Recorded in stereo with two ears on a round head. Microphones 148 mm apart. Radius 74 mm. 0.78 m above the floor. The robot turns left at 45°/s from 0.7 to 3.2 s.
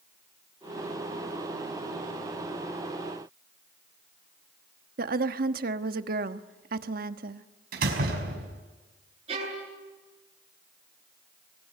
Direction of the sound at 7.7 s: 65° right (ahead or behind).